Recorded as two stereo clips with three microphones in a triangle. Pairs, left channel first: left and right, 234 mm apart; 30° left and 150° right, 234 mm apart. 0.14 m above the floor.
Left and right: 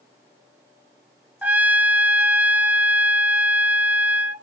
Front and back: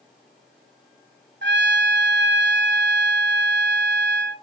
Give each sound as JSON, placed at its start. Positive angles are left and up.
{"t": 1.4, "sound": "a trumpet", "azimuth_deg": -175, "distance_m": 0.6}